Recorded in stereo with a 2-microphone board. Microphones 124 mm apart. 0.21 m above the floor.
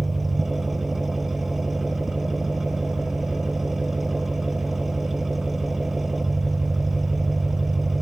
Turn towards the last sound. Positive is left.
turn(degrees=0)  # may be behind; listen again after turning